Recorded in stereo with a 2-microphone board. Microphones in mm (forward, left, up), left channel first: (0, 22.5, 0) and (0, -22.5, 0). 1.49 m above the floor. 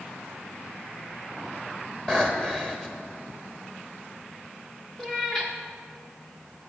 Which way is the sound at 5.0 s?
15° left (ahead or behind).